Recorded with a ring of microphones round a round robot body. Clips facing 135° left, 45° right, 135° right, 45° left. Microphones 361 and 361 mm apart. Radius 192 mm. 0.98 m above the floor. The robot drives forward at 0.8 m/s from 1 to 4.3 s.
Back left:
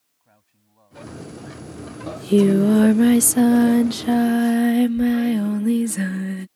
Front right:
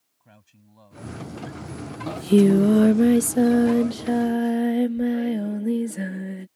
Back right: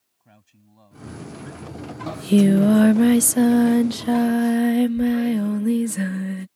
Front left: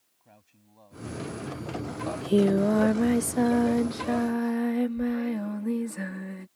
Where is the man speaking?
80° right; by 2.0 s 85° right.